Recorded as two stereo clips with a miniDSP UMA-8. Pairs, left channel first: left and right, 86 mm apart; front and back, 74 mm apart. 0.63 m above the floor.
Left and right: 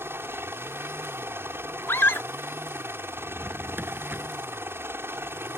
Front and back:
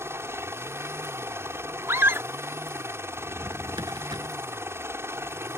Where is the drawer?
155° right.